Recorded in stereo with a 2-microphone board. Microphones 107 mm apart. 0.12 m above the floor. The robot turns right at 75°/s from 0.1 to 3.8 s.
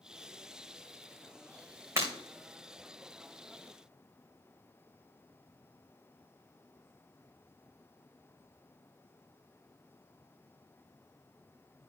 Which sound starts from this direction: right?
Breaking glass, at 2.0 s.